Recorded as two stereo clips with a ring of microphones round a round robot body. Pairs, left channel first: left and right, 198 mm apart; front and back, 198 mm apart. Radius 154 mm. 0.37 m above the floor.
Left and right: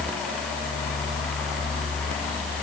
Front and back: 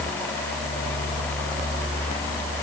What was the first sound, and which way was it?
Only background noise.